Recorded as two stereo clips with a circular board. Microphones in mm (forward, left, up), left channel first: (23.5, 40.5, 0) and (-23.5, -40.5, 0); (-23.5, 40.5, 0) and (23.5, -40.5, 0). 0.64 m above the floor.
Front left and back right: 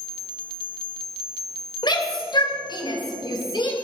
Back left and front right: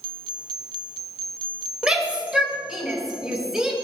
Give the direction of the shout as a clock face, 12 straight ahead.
11 o'clock.